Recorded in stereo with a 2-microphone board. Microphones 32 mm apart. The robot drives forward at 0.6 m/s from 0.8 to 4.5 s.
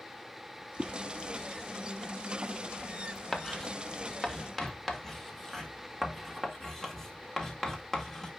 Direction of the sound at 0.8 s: 65° right (ahead or behind).